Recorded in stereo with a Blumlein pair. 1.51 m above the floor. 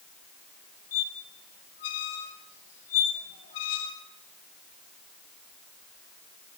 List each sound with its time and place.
0.9 s a squeak: 55° left, 1.8 m